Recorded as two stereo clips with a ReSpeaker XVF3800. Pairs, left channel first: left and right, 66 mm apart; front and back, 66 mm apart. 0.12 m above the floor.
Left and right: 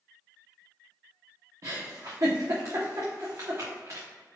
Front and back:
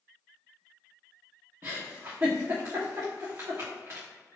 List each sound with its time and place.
1.6 s a giggle: 125° right, 2.5 m